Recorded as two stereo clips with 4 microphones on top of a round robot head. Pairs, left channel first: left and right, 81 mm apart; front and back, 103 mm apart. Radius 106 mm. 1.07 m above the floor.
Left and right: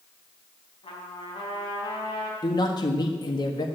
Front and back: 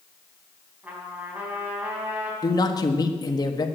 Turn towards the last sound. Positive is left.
turn(degrees=50)